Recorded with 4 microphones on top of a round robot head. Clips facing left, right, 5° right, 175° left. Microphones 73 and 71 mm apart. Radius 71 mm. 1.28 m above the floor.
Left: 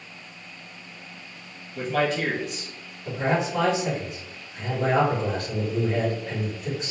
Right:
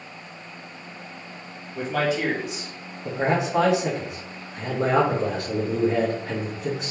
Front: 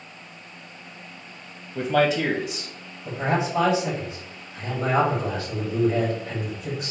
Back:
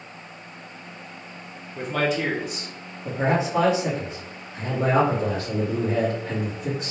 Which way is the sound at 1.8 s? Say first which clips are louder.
Even, front 4 dB; 10° right.